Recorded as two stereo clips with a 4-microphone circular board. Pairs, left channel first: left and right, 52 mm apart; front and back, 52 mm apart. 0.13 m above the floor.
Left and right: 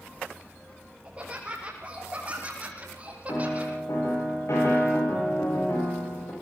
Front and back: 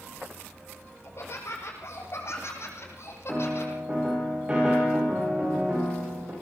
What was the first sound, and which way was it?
Laughter, 25° right.